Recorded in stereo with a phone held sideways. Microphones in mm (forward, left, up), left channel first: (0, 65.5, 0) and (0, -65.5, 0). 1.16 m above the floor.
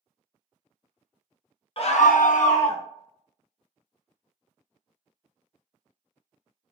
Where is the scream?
45° left (ahead or behind), 0.7 m.